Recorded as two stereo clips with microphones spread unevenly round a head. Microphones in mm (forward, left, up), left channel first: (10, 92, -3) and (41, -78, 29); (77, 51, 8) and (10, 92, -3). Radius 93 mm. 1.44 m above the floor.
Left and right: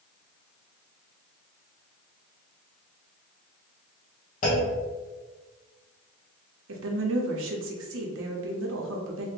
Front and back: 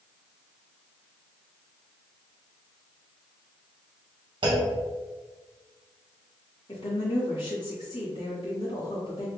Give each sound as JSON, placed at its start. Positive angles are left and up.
{"t": 4.4, "sound": "a clunk", "azimuth_deg": 155, "distance_m": 0.8}
{"t": 6.7, "sound": "a woman speaking", "azimuth_deg": -80, "distance_m": 0.7}